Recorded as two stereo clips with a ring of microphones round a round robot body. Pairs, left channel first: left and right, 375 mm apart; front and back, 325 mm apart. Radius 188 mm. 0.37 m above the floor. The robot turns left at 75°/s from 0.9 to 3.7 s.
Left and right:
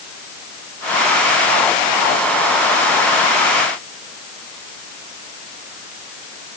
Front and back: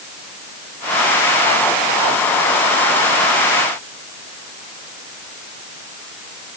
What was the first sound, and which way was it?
Only background noise.